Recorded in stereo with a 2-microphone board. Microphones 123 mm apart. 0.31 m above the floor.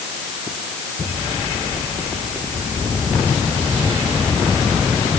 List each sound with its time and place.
Only background noise.